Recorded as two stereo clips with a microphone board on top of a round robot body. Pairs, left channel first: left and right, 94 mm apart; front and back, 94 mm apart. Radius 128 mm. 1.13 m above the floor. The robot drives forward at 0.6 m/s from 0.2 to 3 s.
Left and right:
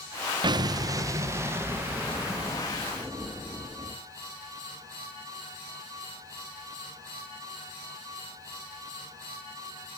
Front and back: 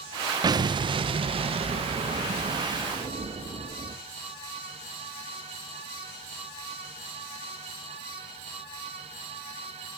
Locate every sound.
0.4 s an explosion: 130° right, 0.7 m; by 4.0 s 165° right, 2 m